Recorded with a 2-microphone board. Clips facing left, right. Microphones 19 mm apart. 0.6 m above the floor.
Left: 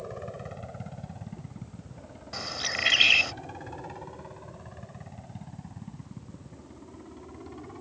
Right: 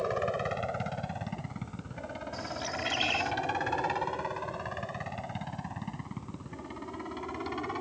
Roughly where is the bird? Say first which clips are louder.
Left 7 dB; left.